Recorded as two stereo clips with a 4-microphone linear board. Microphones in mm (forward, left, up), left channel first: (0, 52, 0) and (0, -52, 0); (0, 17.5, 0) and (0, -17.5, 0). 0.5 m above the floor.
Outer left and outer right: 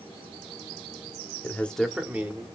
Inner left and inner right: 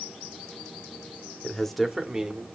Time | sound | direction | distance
1.4 | a man speaking | 20° left (ahead or behind) | 1.2 m